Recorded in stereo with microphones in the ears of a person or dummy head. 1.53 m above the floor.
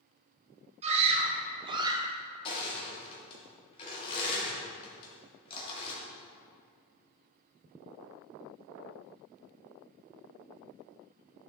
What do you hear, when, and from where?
0.8 s a scream: 35° right (ahead or behind), 1.8 m; by 2.1 s 20° right (ahead or behind), 1.3 m
2.5 s crushing: 35° left (ahead or behind), 2.5 m